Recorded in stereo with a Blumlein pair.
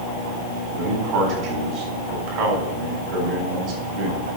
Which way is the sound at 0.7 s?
40° right.